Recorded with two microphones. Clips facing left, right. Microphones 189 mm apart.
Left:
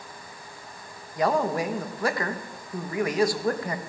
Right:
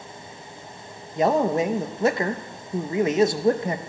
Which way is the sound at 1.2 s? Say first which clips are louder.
Right 4 dB; 25° right (ahead or behind).